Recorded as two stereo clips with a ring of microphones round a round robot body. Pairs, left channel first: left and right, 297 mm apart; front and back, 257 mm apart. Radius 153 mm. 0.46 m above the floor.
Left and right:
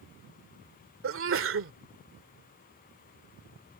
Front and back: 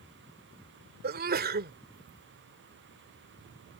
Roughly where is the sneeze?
Behind right.